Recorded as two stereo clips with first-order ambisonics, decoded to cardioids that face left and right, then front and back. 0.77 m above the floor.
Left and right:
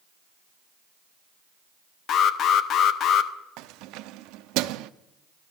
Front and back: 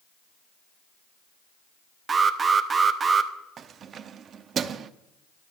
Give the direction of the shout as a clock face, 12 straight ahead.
I don't hear a shout.